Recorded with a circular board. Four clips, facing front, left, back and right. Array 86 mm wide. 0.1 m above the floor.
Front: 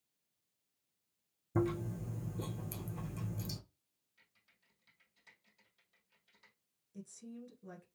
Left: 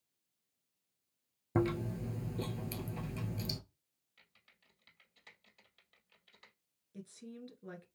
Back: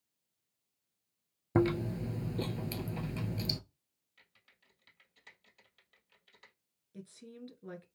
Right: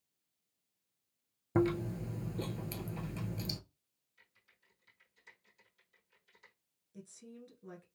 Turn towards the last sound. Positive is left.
turn(degrees=150)